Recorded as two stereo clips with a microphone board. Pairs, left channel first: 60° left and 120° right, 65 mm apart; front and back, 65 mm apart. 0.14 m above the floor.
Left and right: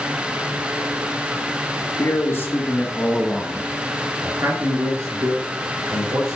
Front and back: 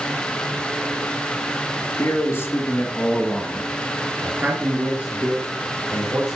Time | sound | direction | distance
2.0 | a man speaking | 30° left | 2.5 m